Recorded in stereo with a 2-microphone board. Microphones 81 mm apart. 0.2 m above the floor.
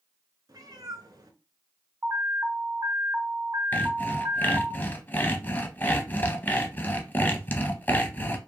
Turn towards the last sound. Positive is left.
turn(degrees=25)  # may be behind; listen again after turning